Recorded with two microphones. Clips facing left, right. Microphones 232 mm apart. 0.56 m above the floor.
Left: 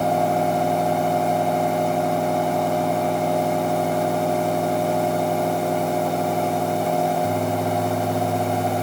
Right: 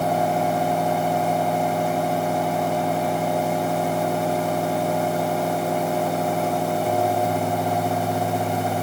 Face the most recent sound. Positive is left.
No sound to turn to.